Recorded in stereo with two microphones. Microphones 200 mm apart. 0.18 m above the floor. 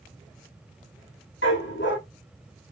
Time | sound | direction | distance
1.4 | a dog barking | 70° left (ahead or behind) | 2.0 m